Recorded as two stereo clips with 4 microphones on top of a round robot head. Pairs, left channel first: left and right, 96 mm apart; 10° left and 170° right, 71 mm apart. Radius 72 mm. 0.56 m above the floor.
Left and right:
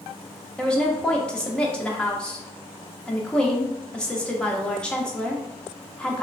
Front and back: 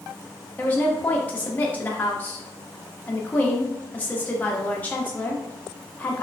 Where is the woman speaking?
20° left, 0.6 m.